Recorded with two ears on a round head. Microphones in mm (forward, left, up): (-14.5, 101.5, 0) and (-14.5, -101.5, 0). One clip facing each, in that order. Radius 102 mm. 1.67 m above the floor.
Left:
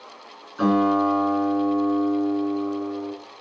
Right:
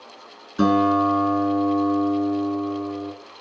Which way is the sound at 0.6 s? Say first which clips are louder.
Right 1 dB; 50° right (ahead or behind).